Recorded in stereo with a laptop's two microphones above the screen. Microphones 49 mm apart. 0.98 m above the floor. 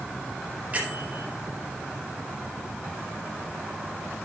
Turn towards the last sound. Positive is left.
turn(degrees=-30)  # may be behind; listen again after turning